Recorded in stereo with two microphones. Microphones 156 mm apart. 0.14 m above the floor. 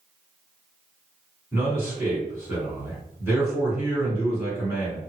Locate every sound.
1.5 s a man speaking: 15° right (ahead or behind), 1.9 m